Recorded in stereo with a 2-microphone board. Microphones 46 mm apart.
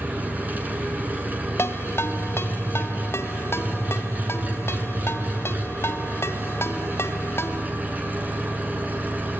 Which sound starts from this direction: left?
A ringtone, at 1.6 s.